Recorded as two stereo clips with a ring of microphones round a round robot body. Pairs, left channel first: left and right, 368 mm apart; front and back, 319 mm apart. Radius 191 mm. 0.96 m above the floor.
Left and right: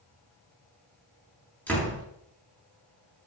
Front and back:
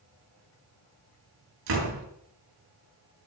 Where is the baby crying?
I don't hear a baby crying.